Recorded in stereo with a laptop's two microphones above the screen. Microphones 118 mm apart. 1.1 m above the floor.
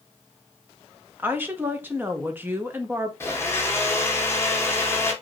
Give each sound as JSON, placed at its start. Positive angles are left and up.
{"t": 1.2, "sound": "a woman speaking", "side_deg": -15, "distance_m": 0.6}
{"t": 3.2, "sound": "a blender", "side_deg": 20, "distance_m": 0.9}